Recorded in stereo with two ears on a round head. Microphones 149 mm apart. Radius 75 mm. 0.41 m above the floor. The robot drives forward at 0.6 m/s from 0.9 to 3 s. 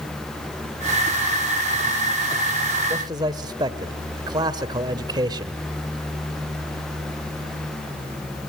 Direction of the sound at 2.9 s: 25° right (ahead or behind).